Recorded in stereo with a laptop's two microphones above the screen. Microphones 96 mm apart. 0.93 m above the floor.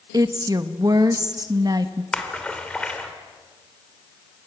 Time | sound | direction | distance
0.1 | a woman speaking | 40° right (ahead or behind) | 1.3 m
2.1 | a splash | 10° left (ahead or behind) | 3.5 m